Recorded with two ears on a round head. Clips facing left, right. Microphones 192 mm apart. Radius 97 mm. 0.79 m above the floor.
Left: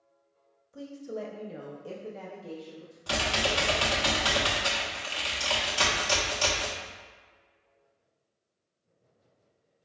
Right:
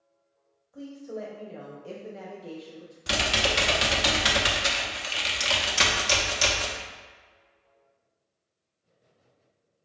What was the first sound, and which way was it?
A woman speaking, 30° left (ahead or behind).